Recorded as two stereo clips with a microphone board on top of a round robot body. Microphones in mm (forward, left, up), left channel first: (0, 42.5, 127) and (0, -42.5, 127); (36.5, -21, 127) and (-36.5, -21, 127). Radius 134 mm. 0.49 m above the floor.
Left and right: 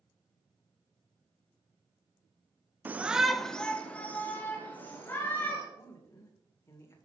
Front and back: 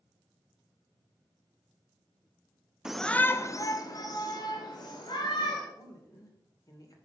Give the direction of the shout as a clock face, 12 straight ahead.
4 o'clock.